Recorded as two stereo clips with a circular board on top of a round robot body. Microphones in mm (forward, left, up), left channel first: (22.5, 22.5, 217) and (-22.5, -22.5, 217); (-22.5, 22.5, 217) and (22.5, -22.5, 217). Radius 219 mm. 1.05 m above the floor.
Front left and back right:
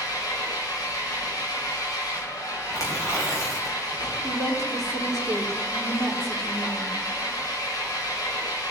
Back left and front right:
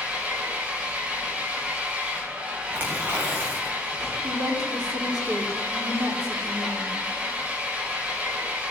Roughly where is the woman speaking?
Ahead right.